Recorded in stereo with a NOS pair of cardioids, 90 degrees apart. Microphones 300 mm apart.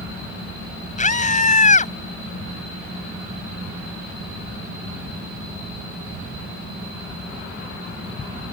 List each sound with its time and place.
1.0 s a scream: 25° left